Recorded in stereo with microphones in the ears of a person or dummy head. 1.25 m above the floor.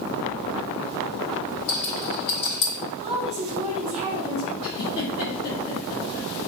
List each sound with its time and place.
1.7 s a rattle: 65° left (ahead or behind), 1.7 m
3.0 s a woman speaking: 25° right (ahead or behind), 1.3 m
4.6 s a giggle: 55° left (ahead or behind), 1.3 m